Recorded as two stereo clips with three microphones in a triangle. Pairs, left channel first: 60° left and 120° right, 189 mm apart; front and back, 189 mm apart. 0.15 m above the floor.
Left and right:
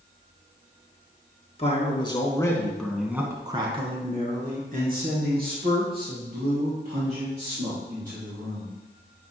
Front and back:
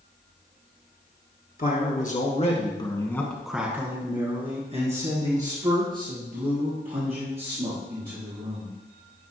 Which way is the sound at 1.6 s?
10° left.